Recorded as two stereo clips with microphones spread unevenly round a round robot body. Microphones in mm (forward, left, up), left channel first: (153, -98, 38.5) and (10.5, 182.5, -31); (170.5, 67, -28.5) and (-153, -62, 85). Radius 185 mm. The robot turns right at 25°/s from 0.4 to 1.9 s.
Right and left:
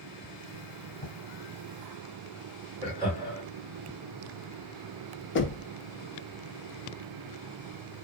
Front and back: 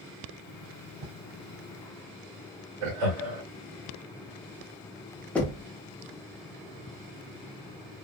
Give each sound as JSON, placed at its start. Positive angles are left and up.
{"t": 1.0, "sound": "writing", "azimuth_deg": -140, "distance_m": 2.5}
{"t": 2.8, "sound": "laughter", "azimuth_deg": -145, "distance_m": 2.0}
{"t": 5.3, "sound": "knocking", "azimuth_deg": -20, "distance_m": 0.9}